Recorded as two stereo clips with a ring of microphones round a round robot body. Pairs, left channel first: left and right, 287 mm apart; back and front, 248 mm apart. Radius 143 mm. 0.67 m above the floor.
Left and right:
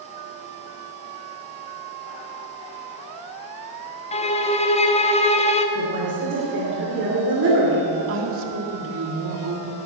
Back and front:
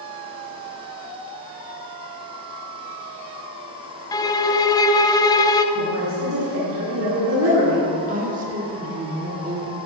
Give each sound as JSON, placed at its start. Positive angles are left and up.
{"t": 4.1, "sound": "a violin", "azimuth_deg": 125, "distance_m": 0.8}
{"t": 5.8, "sound": "a woman speaking", "azimuth_deg": -40, "distance_m": 2.5}
{"t": 8.1, "sound": "a woman speaking", "azimuth_deg": -55, "distance_m": 1.9}